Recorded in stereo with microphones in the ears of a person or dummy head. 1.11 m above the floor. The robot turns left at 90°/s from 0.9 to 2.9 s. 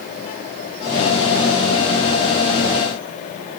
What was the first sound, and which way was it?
Only background noise.